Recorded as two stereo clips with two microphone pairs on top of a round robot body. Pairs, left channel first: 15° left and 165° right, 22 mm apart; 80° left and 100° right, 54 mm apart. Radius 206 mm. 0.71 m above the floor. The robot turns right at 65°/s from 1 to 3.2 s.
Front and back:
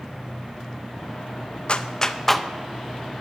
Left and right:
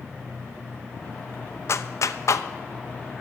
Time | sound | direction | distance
1.7 | a clap | 60° left | 0.8 m